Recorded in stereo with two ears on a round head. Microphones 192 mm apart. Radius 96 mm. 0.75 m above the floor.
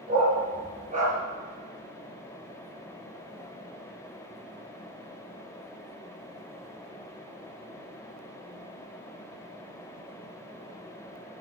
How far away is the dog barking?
About 4 m.